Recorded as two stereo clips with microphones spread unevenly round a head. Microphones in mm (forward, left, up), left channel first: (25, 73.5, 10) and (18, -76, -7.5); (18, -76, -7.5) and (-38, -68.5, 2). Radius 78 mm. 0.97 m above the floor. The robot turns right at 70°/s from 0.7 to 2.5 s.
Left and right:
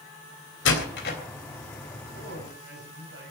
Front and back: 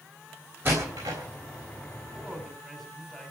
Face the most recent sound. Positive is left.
turn(degrees=-95)